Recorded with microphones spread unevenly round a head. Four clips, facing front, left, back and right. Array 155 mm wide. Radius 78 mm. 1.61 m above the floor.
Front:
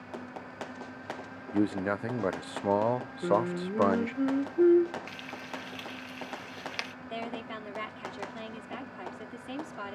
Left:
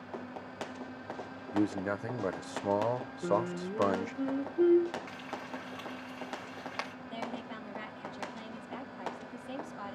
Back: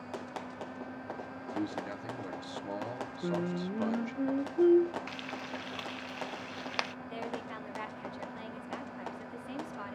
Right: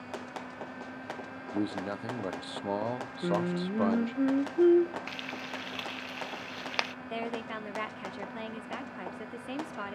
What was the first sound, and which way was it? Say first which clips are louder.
A man speaking: left 2 dB, front 9 dB; straight ahead.